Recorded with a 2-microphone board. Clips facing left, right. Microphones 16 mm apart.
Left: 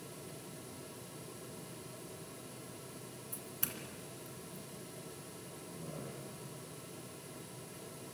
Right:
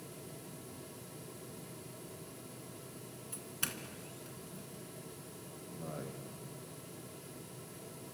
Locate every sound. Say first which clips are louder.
3.3 s a doorbell: right 4 dB; 30° right (ahead or behind), 2.5 m
5.7 s a man speaking: right 3 dB; 75° right (ahead or behind), 7 m